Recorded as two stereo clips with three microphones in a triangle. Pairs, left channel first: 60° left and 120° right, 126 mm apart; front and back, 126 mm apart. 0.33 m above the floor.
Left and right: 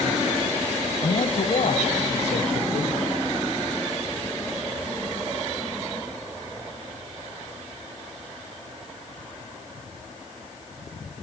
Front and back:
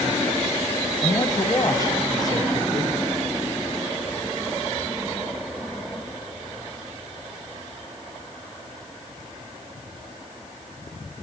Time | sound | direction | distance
1.0 | a man speaking | 55° left | 1.7 m